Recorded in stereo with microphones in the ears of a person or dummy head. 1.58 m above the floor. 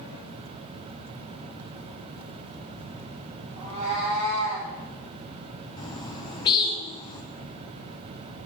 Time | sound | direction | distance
3.6 | a cat meowing | 30° right (ahead or behind) | 1.7 m
5.8 | a bird | 25° left (ahead or behind) | 0.7 m